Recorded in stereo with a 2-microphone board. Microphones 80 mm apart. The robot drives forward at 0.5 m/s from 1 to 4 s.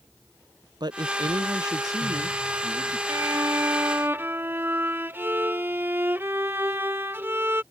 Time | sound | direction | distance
0.8 | a woman speaking | 65° right (ahead or behind) | ?
3.1 | a violin | 40° right (ahead or behind) | ?